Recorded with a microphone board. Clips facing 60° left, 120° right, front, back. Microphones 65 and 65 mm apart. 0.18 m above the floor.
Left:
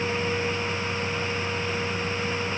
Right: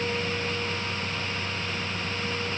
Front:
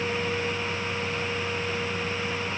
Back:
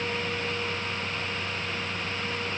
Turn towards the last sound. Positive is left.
No sound to turn to.